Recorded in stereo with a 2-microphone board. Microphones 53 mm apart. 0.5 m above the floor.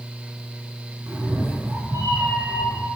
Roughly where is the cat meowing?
Right.